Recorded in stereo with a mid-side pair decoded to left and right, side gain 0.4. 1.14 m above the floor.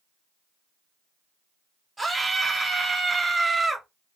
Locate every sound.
2.0 s a scream: 15° right, 0.9 m